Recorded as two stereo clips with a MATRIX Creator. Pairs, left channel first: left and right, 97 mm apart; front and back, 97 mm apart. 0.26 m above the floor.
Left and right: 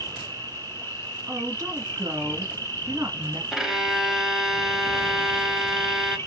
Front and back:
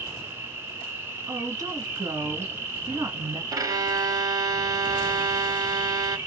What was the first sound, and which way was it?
An insect, 135° left.